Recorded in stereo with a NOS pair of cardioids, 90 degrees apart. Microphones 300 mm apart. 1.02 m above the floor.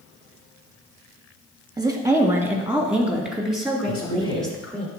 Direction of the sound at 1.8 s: 15° right.